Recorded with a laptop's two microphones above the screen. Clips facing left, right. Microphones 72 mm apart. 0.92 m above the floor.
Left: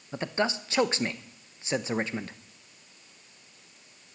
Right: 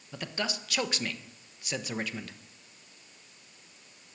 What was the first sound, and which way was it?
A man speaking, 25° left (ahead or behind).